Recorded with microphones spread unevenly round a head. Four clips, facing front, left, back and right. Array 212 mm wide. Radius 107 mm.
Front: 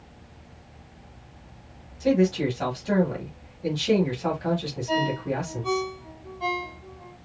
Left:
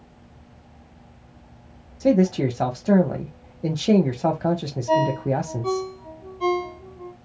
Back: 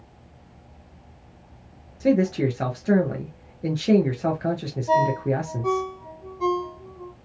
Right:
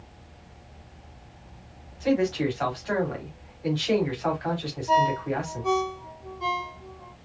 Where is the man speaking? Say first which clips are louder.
Left 5 dB, back 1 dB; 110° left, 1.3 m.